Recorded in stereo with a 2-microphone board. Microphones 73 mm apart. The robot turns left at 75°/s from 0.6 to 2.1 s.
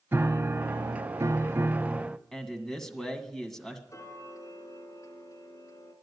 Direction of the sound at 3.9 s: 45° left (ahead or behind).